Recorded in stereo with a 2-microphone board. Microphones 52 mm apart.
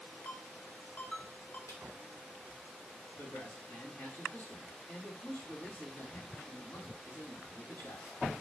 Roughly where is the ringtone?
Left.